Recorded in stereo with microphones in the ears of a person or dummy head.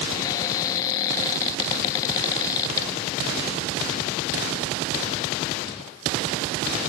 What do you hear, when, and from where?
0.1 s a cupboard door: 20° left (ahead or behind), 0.5 m